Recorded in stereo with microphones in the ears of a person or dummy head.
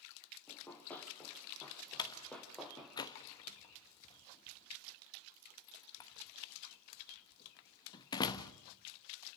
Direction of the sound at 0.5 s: 10° left (ahead or behind).